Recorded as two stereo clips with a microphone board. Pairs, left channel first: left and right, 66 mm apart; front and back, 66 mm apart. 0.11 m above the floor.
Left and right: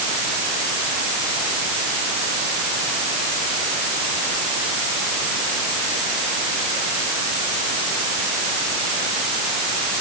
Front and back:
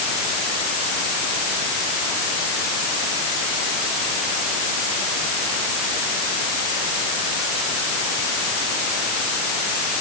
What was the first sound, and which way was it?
Only background noise.